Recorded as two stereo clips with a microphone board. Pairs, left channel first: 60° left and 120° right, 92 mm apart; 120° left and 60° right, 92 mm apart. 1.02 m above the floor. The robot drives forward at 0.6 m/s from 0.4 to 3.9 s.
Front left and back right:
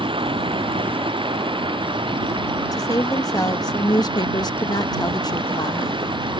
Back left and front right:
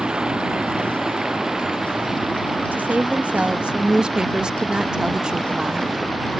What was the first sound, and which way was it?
Running water, 140° right.